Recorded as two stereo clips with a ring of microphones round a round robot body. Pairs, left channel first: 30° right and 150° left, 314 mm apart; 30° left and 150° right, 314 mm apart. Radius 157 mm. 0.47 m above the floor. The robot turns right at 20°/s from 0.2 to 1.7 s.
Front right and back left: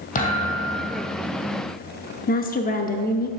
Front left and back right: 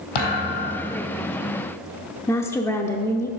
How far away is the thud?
About 2.5 m.